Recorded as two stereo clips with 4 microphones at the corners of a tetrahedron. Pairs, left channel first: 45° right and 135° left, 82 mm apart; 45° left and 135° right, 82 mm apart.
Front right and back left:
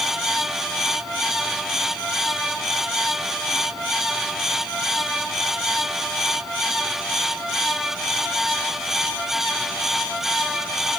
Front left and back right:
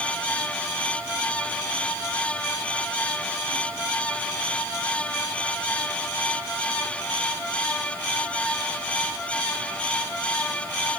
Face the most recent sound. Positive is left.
No sound to turn to.